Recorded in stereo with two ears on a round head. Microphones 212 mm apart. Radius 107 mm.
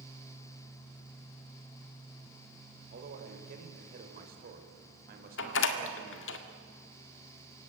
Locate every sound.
2.9 s a man speaking: 45° right (ahead or behind), 4.5 m
5.4 s a door slam: 55° left (ahead or behind), 1.8 m